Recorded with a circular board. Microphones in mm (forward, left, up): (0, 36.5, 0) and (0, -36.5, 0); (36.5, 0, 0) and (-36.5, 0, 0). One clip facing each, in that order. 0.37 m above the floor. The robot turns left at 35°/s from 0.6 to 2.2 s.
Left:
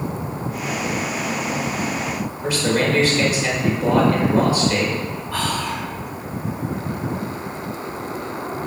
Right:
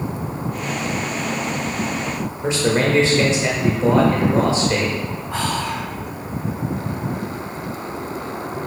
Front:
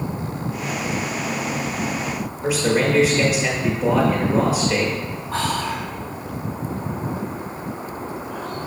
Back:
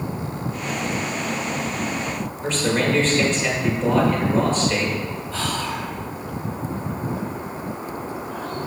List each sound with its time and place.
2.4 s a man speaking: 65° right, 1.5 m
5.3 s whispering: 25° right, 3 m